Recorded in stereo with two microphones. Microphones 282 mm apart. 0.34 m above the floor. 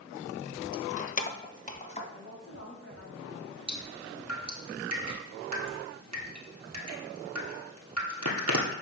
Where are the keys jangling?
15° left (ahead or behind), 0.6 m; by 2.0 s 25° left (ahead or behind), 1.7 m.